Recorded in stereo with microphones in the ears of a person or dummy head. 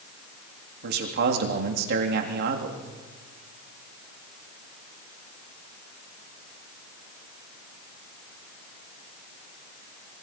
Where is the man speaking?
60° right (ahead or behind), 3 m.